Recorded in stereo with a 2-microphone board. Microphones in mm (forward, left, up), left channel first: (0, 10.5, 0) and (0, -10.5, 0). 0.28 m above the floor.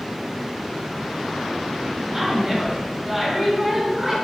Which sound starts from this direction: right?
A woman speaking, at 2.1 s.